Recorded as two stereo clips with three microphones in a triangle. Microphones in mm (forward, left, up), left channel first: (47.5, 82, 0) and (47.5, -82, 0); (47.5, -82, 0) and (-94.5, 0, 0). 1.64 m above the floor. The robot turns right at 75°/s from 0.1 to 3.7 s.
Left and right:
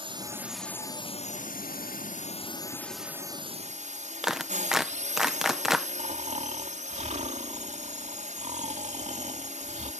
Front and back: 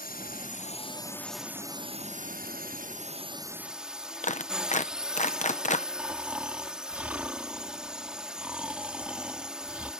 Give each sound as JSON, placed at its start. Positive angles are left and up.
{"t": 0.0, "sound": "a drone", "azimuth_deg": -35}
{"t": 4.2, "sound": "a clap", "azimuth_deg": -5}
{"t": 6.0, "sound": "snoring", "azimuth_deg": -130}